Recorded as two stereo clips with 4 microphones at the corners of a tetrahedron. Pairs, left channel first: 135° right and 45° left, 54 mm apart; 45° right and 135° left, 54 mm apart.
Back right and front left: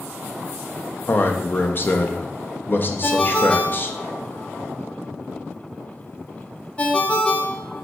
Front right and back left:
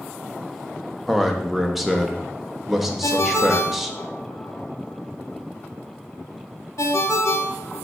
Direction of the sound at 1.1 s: 140° right.